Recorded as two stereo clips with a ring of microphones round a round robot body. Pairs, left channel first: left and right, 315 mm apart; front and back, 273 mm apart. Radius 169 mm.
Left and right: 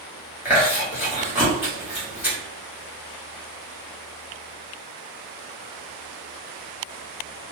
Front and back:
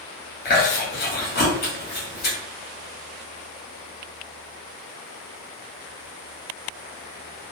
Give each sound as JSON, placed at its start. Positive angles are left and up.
{"t": 0.5, "sound": "chewing", "azimuth_deg": -10, "distance_m": 1.4}